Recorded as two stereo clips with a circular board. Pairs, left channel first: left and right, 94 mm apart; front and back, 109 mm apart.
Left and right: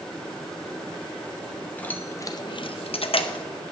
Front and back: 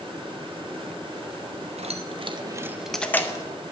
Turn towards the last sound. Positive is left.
turn(degrees=60)